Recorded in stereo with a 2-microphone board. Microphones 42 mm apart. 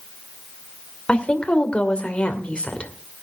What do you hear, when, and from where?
1.1 s a woman speaking: 30° left (ahead or behind), 2 m